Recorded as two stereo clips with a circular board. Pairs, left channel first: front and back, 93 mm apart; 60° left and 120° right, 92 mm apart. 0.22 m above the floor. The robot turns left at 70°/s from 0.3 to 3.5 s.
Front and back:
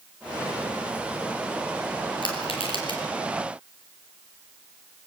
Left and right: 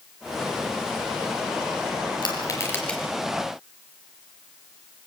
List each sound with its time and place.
2.2 s crushing: 30° left, 5 m; by 3.0 s 25° right, 5 m